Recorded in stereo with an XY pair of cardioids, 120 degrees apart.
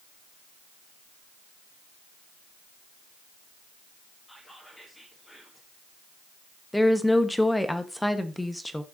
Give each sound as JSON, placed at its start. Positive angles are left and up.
{"t": 4.3, "sound": "whispering", "azimuth_deg": 15, "distance_m": 2.0}
{"t": 6.7, "sound": "a woman speaking", "azimuth_deg": 5, "distance_m": 1.1}